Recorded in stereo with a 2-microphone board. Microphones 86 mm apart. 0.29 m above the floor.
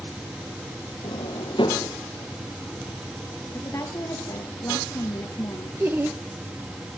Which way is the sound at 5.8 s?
25° right (ahead or behind).